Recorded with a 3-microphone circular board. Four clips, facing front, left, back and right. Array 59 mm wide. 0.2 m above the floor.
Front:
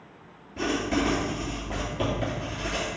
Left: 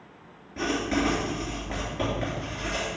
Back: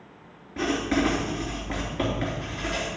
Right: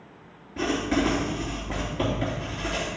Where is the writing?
175° left, 3 m.